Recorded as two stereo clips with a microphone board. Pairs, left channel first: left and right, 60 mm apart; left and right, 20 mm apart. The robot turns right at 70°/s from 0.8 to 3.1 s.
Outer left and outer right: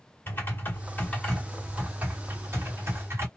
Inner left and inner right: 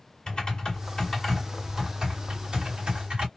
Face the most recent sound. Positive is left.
turn(degrees=-70)